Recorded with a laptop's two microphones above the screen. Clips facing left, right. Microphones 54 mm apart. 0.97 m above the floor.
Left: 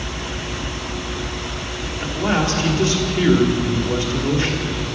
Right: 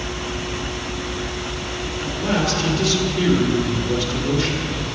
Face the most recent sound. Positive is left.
turn(degrees=30)  # may be behind; listen again after turning